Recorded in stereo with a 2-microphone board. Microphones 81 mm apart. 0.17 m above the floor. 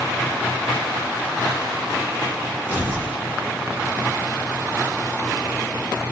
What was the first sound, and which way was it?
Tearing paper, 75° left (ahead or behind).